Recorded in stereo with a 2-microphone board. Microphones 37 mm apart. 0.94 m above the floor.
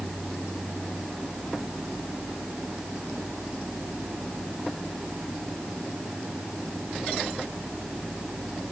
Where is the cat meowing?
No cat meowing in this recording.